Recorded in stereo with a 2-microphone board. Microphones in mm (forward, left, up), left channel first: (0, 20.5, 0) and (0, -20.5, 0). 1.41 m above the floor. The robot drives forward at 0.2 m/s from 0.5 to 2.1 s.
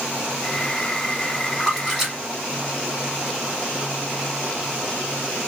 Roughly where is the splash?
Centre.